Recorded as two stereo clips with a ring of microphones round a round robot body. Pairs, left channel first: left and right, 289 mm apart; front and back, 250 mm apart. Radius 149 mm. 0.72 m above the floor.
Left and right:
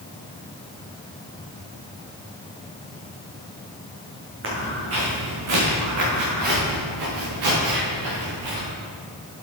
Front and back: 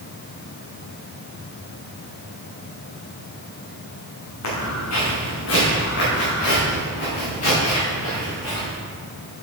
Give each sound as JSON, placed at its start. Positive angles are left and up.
{"t": 4.4, "sound": "footsteps", "azimuth_deg": -40, "distance_m": 4.5}